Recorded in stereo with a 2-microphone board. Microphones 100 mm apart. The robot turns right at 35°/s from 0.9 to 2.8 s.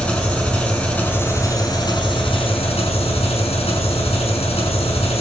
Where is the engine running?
10° left, 7 m; by 5.2 s 75° left, 7 m.